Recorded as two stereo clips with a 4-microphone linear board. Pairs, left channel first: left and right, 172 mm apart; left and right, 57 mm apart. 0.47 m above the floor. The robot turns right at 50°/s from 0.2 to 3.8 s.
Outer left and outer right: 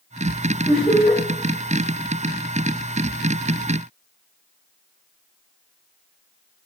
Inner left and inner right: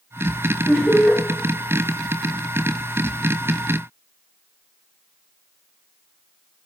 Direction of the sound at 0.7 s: 35° left (ahead or behind).